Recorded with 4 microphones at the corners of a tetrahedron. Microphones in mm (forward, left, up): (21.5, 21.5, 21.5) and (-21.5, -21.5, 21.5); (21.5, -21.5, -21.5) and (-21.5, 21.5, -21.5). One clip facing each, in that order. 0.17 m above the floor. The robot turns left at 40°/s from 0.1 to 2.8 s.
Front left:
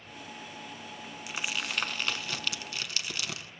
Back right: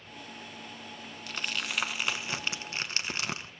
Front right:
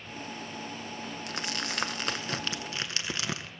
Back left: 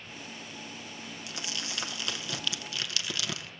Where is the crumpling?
30° right, 0.6 m; by 3.5 s 90° right, 0.6 m.